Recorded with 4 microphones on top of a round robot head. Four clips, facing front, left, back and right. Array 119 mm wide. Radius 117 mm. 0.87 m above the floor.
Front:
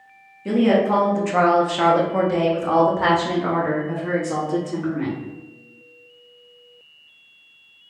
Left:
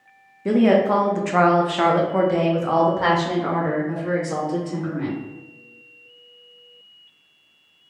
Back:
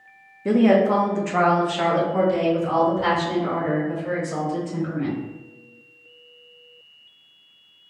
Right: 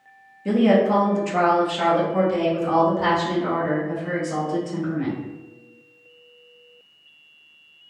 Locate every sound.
0.5 s a woman speaking: 130° left, 0.9 m; by 5.2 s 30° left, 2.5 m